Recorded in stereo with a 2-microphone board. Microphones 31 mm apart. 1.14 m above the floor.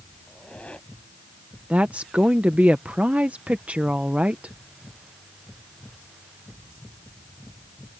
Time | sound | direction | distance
0.3 | a squeak | 35° left (ahead or behind) | ?
1.7 | a woman speaking | 45° right (ahead or behind) | ?